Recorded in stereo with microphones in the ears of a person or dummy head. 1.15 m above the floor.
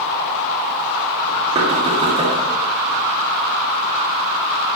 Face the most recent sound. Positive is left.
turn(degrees=-25)  # may be behind; listen again after turning